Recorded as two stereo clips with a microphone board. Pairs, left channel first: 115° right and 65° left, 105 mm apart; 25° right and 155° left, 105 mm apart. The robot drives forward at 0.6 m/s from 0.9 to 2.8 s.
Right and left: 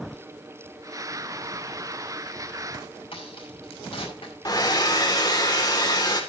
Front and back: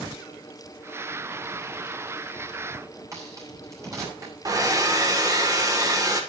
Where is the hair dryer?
155° right, 1.9 m.